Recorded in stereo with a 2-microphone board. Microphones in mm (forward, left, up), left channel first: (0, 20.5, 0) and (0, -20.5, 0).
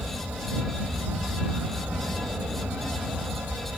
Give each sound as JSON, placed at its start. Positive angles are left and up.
{"t": 0.0, "sound": "an aircraft", "side_deg": -60}